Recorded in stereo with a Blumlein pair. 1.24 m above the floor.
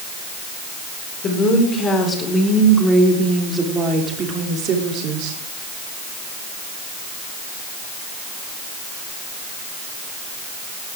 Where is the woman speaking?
25° left, 4 m; by 5.4 s 40° right, 3.5 m.